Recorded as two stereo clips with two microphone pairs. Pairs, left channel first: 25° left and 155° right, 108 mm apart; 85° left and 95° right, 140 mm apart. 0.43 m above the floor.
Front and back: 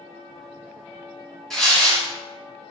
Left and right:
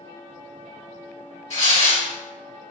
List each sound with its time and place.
1.5 s tearing paper: 110° left, 1.3 m